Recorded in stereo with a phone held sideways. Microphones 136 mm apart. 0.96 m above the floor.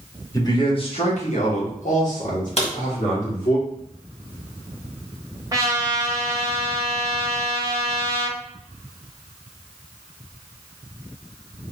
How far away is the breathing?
I don't hear breathing.